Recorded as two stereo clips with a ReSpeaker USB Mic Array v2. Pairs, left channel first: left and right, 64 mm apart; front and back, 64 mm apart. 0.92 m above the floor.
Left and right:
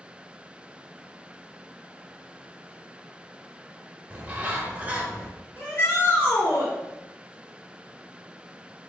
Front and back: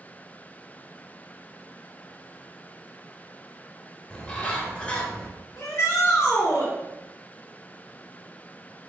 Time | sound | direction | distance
4.1 | a bird | 50° right | 0.7 m
5.6 | a shout | 40° left | 1.5 m